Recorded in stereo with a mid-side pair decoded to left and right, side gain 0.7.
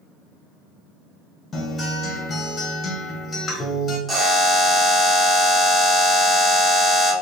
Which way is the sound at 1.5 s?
25° left.